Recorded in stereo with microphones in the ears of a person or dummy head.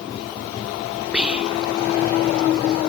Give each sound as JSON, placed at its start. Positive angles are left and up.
{"t": 1.1, "sound": "whispering", "side_deg": 0}